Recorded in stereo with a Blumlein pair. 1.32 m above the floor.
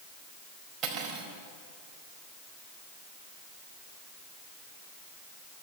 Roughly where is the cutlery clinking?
Ahead right.